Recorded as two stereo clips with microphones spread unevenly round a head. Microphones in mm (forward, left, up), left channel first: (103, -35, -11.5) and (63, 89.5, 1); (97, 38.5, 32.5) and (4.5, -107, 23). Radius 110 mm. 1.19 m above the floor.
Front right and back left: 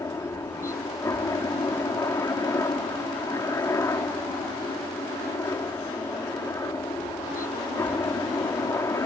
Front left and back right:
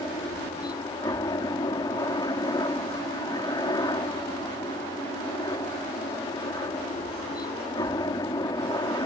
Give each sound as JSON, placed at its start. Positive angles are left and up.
{"t": 0.0, "sound": "a helicopter", "azimuth_deg": -10}